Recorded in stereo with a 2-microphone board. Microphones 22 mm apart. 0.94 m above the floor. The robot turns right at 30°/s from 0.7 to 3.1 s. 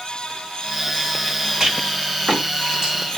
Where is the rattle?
25° right (ahead or behind), 1.7 m; by 2.9 s 55° right (ahead or behind), 1.7 m.